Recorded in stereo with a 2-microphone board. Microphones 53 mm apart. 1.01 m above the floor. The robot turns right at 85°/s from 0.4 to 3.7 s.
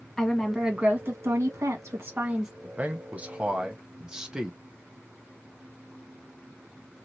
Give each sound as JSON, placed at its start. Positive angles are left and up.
{"t": 0.2, "sound": "a woman speaking", "azimuth_deg": 170, "distance_m": 1.5}
{"t": 2.6, "sound": "a man speaking", "side_deg": -25, "distance_m": 0.8}